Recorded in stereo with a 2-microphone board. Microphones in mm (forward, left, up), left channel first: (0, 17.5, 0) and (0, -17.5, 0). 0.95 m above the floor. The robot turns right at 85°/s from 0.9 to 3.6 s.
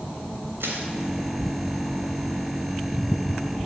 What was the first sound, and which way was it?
Crushing, 80° right.